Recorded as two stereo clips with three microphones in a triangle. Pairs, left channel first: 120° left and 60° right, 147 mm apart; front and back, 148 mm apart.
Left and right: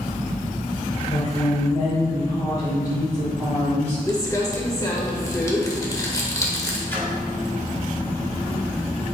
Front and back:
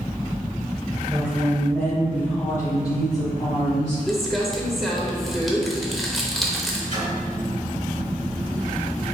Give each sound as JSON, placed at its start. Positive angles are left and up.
{"t": 1.1, "sound": "a woman speaking", "azimuth_deg": 115, "distance_m": 1.3}
{"t": 4.1, "sound": "crumpling", "azimuth_deg": 90, "distance_m": 0.8}
{"t": 6.9, "sound": "a splash", "azimuth_deg": -165, "distance_m": 1.8}